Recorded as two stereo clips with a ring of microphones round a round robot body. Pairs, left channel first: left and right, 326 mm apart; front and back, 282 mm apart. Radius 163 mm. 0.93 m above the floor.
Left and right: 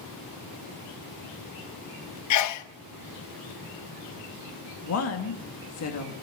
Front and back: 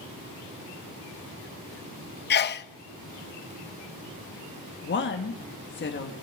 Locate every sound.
2.3 s a sneeze: 55° left, 0.7 m
4.8 s a woman speaking: 50° left, 1.6 m